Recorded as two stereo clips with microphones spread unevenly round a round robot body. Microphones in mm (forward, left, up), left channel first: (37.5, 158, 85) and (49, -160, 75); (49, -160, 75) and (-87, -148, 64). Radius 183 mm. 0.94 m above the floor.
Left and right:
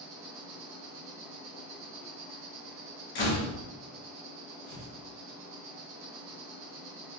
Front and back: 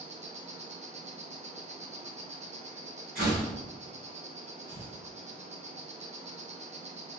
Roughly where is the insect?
Behind right.